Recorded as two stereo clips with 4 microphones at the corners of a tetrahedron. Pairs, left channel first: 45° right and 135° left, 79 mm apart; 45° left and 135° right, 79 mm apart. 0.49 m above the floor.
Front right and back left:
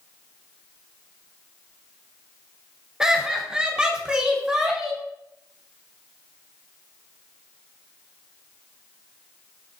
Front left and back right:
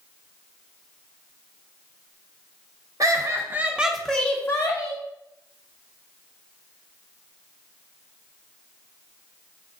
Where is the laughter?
145° right, 0.9 m; by 5.0 s 55° left, 1.0 m.